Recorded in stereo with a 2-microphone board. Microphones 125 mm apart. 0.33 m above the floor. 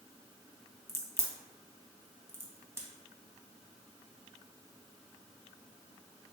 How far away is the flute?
I don't hear a flute.